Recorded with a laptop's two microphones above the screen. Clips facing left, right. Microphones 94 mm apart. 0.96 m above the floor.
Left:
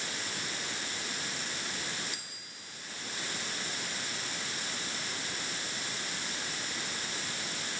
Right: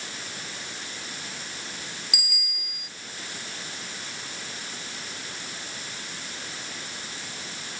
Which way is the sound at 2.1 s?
90° right.